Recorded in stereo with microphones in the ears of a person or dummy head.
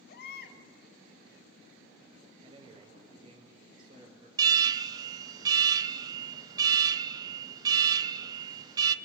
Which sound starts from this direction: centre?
An alarm, at 4.4 s.